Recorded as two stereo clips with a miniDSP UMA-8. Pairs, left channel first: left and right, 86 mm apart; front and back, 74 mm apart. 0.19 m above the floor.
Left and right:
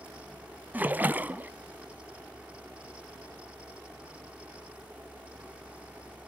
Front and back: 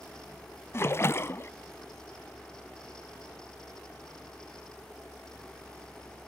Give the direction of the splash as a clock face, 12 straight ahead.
1 o'clock.